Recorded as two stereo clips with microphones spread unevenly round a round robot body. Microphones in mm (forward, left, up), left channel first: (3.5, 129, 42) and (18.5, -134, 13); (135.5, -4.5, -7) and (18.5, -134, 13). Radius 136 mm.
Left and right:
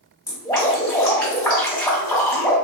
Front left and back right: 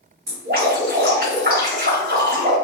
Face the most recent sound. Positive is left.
turn(degrees=170)